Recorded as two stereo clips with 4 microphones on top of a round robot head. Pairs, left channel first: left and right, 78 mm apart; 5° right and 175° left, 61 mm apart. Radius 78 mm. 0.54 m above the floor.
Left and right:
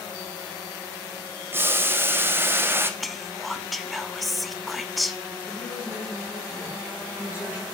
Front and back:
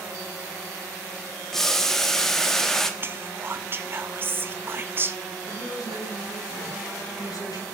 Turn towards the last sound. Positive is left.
turn(degrees=-15)